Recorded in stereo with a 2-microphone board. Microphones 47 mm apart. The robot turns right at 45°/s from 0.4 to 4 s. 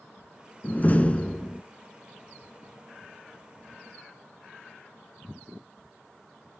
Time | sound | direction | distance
0.6 | a door slam | 115° left | 1.1 m